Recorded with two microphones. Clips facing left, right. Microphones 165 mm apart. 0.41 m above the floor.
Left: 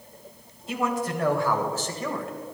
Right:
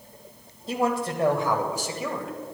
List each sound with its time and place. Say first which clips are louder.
0.7 s a man speaking: right 2 dB; 35° right (ahead or behind), 1.9 m; by 2.3 s centre (ahead or behind), 1.8 m